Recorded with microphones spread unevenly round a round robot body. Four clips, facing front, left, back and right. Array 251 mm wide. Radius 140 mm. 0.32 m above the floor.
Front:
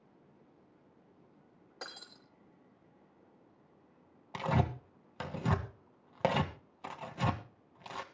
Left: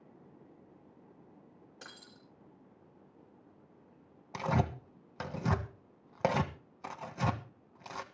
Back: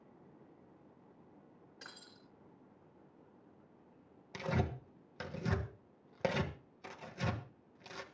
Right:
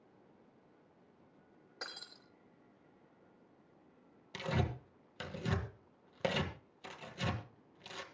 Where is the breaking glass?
10° right, 6.5 m.